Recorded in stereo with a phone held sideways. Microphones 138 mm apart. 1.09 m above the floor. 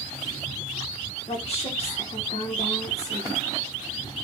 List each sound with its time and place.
1.3 s a woman speaking: 45° left (ahead or behind), 1.9 m